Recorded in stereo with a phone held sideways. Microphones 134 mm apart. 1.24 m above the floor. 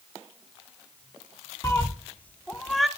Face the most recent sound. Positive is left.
turn(degrees=0)  # may be behind; listen again after turning